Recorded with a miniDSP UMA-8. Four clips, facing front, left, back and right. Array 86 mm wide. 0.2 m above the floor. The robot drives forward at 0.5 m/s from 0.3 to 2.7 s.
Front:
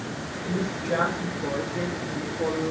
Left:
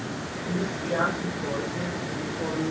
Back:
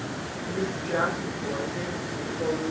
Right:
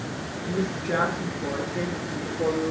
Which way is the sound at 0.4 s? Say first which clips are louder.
Right 2 dB, front 2 dB; 75° right.